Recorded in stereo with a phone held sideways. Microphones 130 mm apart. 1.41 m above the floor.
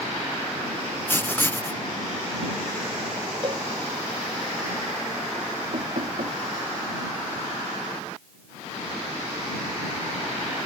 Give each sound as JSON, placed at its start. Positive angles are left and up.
{"t": 1.1, "sound": "writing", "side_deg": 15}
{"t": 3.4, "sound": "a cowbell", "side_deg": -40}
{"t": 5.7, "sound": "knocking", "side_deg": -70}